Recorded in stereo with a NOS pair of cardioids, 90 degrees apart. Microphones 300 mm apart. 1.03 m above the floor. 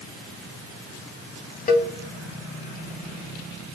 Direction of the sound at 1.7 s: 30° left.